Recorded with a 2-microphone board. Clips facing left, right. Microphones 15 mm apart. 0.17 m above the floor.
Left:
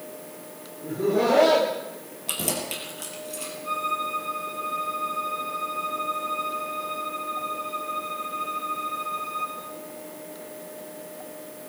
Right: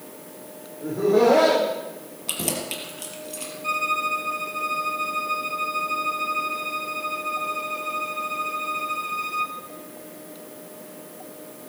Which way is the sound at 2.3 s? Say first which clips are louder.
Right 1 dB; 10° right (ahead or behind).